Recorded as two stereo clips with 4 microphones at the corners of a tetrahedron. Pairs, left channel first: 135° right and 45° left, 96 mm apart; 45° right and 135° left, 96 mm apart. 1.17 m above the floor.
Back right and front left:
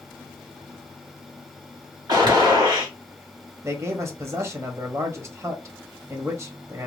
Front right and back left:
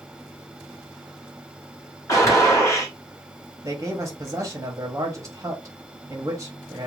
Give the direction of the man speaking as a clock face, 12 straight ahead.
9 o'clock.